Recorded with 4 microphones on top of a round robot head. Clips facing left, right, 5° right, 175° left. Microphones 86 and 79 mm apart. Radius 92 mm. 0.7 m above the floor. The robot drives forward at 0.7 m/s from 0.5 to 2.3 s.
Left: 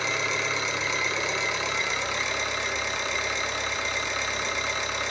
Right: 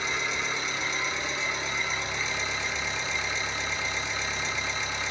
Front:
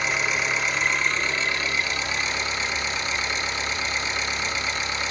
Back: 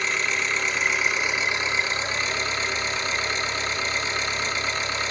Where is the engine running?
80° left, 1.6 m; by 5.1 s 120° left, 1.8 m.